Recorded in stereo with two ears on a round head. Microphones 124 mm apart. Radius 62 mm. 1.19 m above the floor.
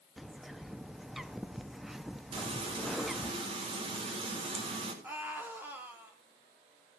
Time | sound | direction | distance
0.2 | a bird | centre (ahead or behind) | 0.6 m
2.3 | frying | 40° right (ahead or behind) | 4 m
5.0 | a scream | 15° right (ahead or behind) | 3.5 m